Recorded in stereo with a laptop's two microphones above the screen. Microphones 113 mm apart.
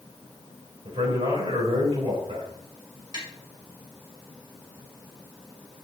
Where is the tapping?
45° right (ahead or behind), 1.5 m.